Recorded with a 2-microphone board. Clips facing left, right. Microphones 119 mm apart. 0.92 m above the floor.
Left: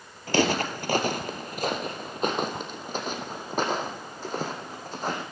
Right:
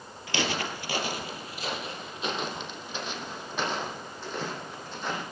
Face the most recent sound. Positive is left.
turn(degrees=40)  # may be behind; listen again after turning